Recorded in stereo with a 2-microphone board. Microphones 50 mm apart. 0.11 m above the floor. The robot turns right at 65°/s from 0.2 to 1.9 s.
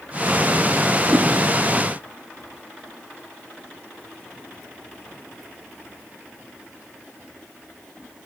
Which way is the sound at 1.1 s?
40° right (ahead or behind).